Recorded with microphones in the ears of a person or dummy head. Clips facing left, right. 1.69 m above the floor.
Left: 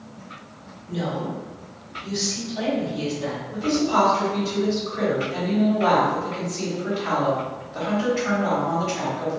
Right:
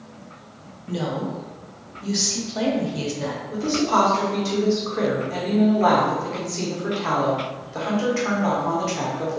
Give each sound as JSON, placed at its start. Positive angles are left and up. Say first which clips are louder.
{"t": 0.9, "sound": "a woman speaking", "louder": "right 1 dB", "side_deg": -65, "distance_m": 0.7}
{"t": 3.5, "sound": "a woman speaking", "louder": "even", "side_deg": -55, "distance_m": 0.9}